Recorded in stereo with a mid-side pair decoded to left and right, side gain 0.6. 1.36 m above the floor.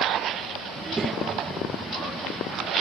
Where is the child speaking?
25° right.